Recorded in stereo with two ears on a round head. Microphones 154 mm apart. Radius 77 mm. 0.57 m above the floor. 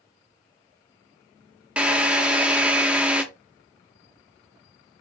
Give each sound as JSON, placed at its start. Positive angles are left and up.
{"t": 1.8, "sound": "a drill", "side_deg": -5, "distance_m": 0.8}